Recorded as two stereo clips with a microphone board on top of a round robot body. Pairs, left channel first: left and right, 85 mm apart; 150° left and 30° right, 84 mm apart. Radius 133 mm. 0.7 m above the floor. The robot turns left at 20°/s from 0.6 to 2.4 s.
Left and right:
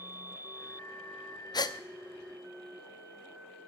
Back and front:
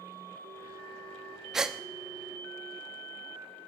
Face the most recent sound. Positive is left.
turn(degrees=35)